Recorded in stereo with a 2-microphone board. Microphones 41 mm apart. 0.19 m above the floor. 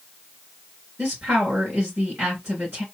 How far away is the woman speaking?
About 3 m.